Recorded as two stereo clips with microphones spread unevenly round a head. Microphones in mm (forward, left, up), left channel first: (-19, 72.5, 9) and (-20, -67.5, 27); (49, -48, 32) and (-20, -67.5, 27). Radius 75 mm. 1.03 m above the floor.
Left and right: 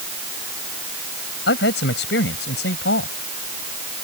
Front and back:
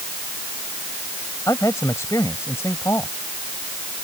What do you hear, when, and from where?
1.5 s a man speaking: 85° left